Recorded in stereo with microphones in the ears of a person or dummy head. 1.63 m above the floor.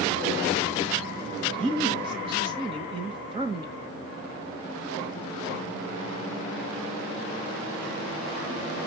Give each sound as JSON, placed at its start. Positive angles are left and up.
{"t": 1.5, "sound": "a man speaking", "side_deg": -30, "distance_m": 1.7}